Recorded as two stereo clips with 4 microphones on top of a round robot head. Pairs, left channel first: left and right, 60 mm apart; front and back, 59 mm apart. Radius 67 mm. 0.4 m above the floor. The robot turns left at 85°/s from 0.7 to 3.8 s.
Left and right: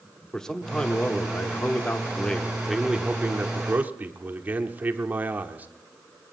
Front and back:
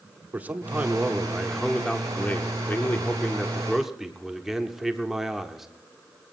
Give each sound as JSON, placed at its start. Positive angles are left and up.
{"t": 0.3, "sound": "a man speaking", "azimuth_deg": 160, "distance_m": 1.2}